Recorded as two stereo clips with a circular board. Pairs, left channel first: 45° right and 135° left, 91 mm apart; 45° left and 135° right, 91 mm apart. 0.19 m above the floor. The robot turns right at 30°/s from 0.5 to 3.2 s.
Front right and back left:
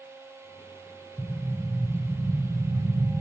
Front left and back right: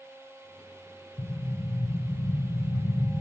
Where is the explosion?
20° left, 0.5 m; by 3.2 s 80° left, 0.5 m.